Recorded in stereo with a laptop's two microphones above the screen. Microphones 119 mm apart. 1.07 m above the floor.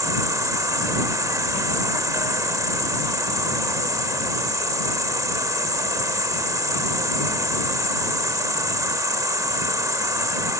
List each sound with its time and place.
0.0 s an insect: 30° right (ahead or behind)